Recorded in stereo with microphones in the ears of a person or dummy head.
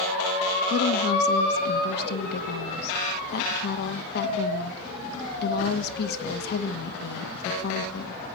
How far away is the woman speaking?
About 1.6 m.